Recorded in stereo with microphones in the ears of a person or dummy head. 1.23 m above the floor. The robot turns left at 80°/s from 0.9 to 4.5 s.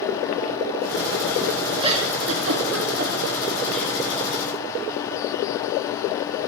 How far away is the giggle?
About 2.5 m.